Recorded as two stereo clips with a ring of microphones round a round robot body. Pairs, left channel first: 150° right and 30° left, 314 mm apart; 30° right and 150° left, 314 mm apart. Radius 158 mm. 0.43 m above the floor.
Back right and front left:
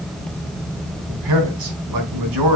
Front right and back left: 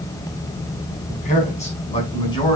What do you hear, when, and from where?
1.1 s a man speaking: 35° left, 4.5 m; by 2.6 s 45° left, 5 m